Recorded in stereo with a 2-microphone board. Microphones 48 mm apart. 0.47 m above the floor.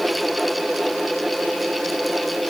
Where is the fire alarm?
No fire alarm in this recording.